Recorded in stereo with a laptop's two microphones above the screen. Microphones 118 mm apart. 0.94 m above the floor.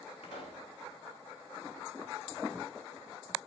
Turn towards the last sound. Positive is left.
turn(degrees=75)  # may be behind; listen again after turning